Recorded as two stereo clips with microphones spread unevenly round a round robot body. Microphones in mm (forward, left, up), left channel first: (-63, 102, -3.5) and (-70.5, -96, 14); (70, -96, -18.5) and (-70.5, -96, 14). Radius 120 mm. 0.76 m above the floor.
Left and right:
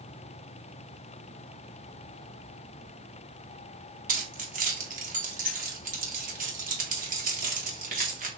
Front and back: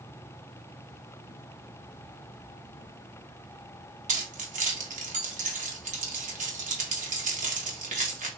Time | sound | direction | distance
4.1 | keys jangling | 145° right | 1.0 m